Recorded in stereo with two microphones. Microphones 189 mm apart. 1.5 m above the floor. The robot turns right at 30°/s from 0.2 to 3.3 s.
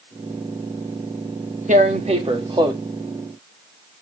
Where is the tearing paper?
55° right, 1.3 m; by 2.8 s 25° right, 1.3 m.